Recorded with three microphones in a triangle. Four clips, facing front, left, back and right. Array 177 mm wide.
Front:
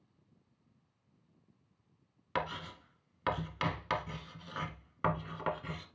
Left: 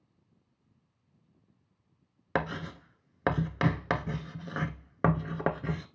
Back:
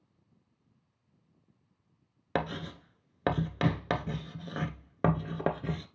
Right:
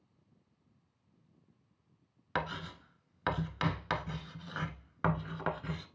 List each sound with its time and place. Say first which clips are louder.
2.4 s writing: left 5 dB, back 4 dB; 140° left, 0.9 m